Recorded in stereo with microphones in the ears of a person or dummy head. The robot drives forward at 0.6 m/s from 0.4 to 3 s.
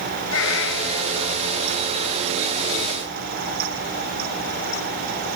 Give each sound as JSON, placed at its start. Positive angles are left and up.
{"t": 0.3, "sound": "a cat meowing", "side_deg": 85}